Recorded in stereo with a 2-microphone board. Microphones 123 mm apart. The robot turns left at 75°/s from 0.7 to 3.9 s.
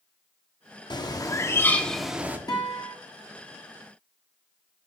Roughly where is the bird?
Left.